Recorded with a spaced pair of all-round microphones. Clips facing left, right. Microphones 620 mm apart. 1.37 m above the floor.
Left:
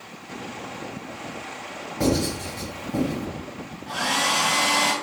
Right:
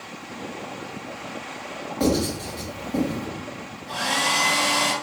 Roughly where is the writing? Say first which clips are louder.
Right 1 dB; left.